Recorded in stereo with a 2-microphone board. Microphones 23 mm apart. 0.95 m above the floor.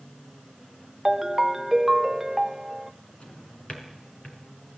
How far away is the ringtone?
About 0.6 m.